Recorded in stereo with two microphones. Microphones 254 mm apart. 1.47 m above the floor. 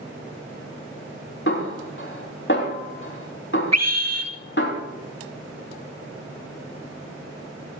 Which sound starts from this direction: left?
A snare drum, at 1.5 s.